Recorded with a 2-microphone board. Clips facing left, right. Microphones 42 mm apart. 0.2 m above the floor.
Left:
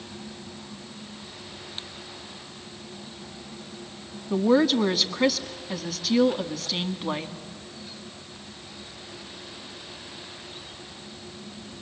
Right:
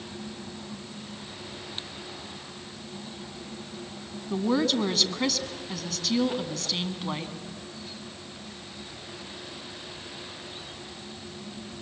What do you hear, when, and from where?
4.3 s a woman speaking: 10° left (ahead or behind), 1.5 m